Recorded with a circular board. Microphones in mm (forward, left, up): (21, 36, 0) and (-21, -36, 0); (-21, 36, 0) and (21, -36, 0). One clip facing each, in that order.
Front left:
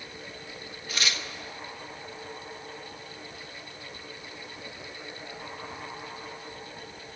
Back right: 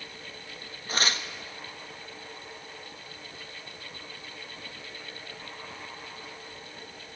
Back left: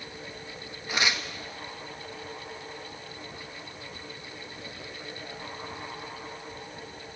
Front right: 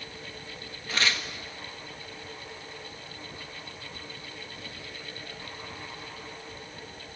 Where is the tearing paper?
165° right, 1.1 m.